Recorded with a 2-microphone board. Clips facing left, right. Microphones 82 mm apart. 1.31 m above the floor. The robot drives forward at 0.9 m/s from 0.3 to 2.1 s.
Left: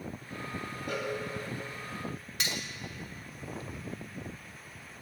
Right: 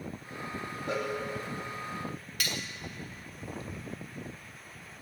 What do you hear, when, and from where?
0.9 s a cowbell: 30° right (ahead or behind), 1.5 m
2.4 s cutlery clinking: 25° left (ahead or behind), 0.6 m